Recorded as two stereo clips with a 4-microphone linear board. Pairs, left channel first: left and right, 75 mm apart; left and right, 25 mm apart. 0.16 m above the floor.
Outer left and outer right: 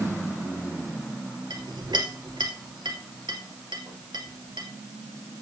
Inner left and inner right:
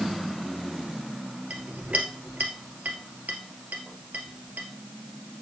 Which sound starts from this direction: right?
A clink, at 1.5 s.